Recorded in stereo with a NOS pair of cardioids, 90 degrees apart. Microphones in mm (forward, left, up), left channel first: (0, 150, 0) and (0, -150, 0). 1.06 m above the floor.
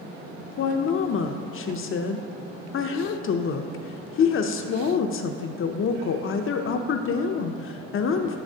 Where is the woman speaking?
45° left, 0.6 m.